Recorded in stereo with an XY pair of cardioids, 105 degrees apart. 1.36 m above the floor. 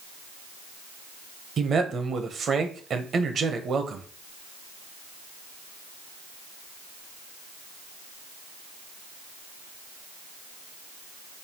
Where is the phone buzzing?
I don't hear a phone buzzing.